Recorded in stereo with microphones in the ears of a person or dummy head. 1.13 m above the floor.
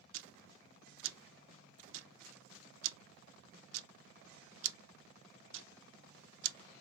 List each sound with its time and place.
0.1 s ticking: 70° right (ahead or behind), 0.6 m